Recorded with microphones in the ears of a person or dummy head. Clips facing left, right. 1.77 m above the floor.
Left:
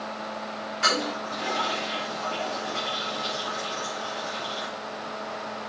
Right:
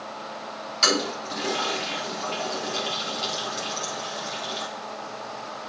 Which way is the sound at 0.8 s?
60° right (ahead or behind).